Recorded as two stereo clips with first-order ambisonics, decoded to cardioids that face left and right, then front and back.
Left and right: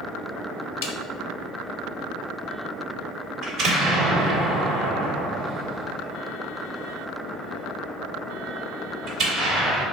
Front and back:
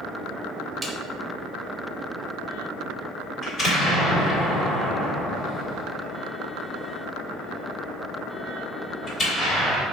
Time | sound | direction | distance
0.8 | a snare drum | 95° left | 0.6 m
3.4 | an explosion | 45° right | 1.6 m